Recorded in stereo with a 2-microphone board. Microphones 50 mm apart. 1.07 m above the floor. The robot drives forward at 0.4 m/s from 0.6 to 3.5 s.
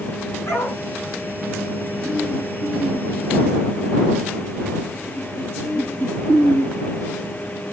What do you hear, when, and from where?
0.5 s a dog barking: 55° left (ahead or behind), 5 m